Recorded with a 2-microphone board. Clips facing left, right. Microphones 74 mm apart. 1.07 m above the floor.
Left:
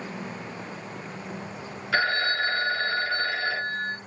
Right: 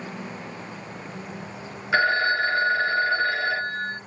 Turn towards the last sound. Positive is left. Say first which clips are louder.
# right 4 dB
turn(degrees=-20)  # may be behind; listen again after turning